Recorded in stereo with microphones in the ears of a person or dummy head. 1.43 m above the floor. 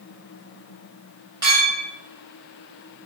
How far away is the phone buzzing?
No phone buzzing in this recording.